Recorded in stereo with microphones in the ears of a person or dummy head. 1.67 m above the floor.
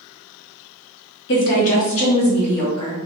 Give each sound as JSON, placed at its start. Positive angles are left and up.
{"t": 1.3, "sound": "a woman speaking", "side_deg": 55, "distance_m": 0.9}